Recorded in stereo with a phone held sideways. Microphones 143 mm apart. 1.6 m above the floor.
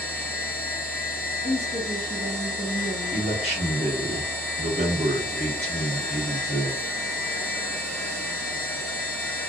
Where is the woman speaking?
50° left (ahead or behind), 0.8 m.